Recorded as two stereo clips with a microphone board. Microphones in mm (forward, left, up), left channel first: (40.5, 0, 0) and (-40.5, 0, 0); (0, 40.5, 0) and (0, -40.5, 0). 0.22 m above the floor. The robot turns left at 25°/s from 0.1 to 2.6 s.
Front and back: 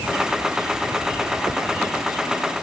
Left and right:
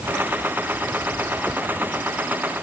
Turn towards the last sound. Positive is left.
No sound to turn to.